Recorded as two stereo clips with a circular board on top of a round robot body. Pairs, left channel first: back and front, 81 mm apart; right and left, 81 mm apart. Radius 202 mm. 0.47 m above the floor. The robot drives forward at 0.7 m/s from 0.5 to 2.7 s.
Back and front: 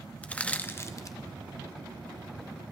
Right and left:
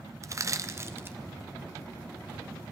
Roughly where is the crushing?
Behind left.